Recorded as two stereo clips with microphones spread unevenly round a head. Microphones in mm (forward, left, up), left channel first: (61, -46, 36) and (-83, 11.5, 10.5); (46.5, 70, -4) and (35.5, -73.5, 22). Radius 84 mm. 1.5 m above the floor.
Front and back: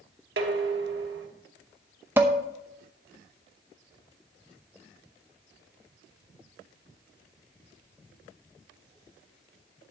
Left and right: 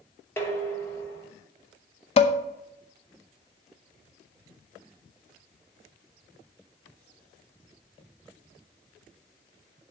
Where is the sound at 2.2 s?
75° left, 0.7 m.